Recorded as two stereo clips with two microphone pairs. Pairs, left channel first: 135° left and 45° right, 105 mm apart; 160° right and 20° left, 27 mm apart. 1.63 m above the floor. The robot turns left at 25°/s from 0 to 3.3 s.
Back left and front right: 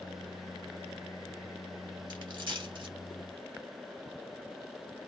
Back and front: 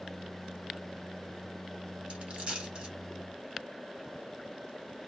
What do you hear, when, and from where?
2.1 s a dropped coin: 15° right, 2.5 m; by 2.9 s 35° right, 2.5 m